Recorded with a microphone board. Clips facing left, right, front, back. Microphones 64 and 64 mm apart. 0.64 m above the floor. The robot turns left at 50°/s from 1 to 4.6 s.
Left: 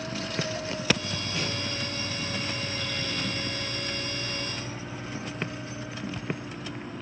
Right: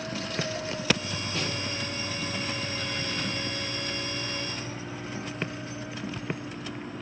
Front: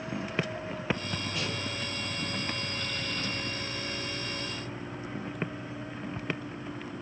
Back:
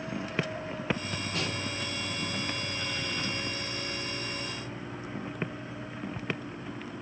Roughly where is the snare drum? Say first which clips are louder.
Even, back 3 dB; behind.